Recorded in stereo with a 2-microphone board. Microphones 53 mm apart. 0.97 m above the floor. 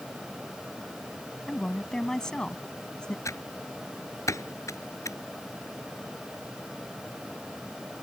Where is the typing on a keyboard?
70° left (ahead or behind).